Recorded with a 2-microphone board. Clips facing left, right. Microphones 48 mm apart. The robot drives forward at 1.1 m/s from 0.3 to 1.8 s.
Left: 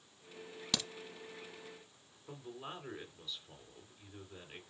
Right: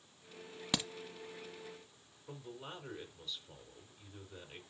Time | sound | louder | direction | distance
0.7 | a crack | right 2 dB | 15° right (ahead or behind) | 0.8 m
2.3 | a man speaking | left 1 dB | 10° left (ahead or behind) | 3 m